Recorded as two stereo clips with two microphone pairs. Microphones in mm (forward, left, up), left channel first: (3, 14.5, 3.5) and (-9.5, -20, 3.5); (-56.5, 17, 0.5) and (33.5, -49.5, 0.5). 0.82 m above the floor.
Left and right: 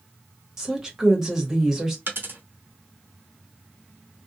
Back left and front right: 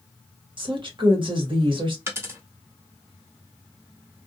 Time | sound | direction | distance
0.6 | a woman speaking | 35° right | 1.2 m
2.1 | a dropped coin | 105° right | 0.8 m